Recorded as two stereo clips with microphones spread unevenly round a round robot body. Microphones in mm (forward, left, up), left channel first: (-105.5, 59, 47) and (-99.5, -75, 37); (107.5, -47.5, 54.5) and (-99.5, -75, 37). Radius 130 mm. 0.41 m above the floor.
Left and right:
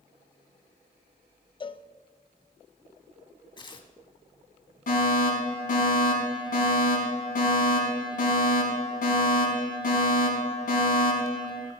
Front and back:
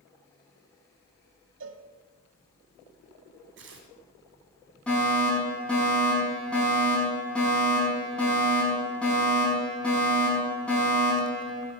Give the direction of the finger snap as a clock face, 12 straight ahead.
No finger snap in this recording.